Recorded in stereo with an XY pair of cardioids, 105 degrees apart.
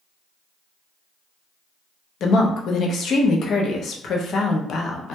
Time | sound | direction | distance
2.2 | a woman speaking | 60° left | 0.6 m